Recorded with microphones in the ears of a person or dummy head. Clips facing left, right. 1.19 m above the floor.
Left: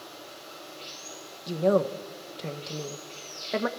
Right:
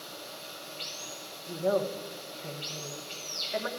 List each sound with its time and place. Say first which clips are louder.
0.0 s running water: even; 55° right (ahead or behind), 7 m
1.5 s a woman speaking: left 5 dB; 65° left (ahead or behind), 1.0 m